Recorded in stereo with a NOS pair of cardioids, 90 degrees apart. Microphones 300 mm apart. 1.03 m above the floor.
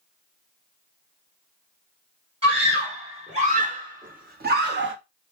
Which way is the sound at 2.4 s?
20° right.